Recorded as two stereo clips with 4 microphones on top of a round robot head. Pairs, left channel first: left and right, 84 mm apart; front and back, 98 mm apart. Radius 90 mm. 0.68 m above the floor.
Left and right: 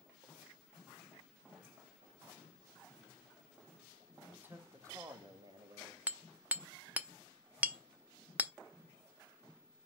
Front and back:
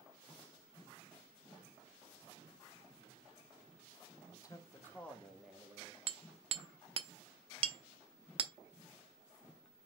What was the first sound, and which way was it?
A man speaking, 25° right.